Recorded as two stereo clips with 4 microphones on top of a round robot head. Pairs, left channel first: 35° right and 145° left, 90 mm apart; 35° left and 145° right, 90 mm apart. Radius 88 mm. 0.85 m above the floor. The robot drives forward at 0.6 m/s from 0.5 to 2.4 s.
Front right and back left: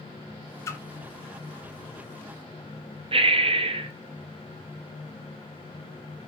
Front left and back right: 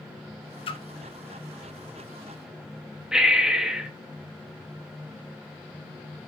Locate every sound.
0.7 s a splash: 25° left, 1.1 m
3.1 s breathing: 135° left, 1.0 m